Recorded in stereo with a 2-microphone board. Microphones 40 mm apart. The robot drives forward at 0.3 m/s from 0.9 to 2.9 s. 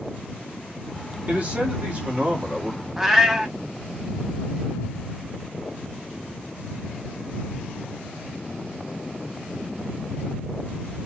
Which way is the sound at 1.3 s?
40° right (ahead or behind).